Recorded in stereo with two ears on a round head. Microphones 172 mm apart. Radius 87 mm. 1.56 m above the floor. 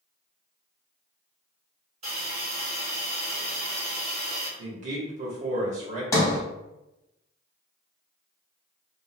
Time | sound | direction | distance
2.0 | a hiss | 35° right (ahead or behind) | 1.4 m
4.6 | a man speaking | 40° right (ahead or behind) | 0.8 m
6.1 | a sliding door | 15° left (ahead or behind) | 0.7 m